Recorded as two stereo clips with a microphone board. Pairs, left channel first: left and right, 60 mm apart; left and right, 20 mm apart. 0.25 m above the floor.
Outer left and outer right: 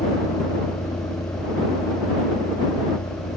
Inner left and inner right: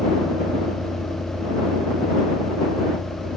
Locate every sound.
0.0 s a vehicle: 85° left